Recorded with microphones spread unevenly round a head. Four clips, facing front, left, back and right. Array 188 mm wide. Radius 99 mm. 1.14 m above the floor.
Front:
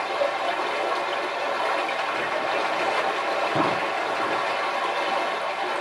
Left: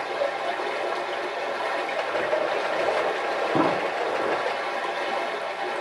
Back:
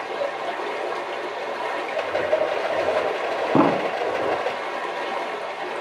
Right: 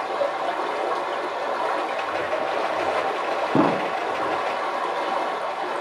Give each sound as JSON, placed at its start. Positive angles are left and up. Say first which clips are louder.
{"t": 0.0, "sound": "running water", "louder": "right 2 dB, front 2 dB", "azimuth_deg": -65, "distance_m": 1.5}
{"t": 1.9, "sound": "a rattle", "louder": "even, back 4 dB", "azimuth_deg": 155, "distance_m": 1.3}
{"t": 3.5, "sound": "an explosion", "louder": "right 4 dB, back 9 dB", "azimuth_deg": -160, "distance_m": 0.6}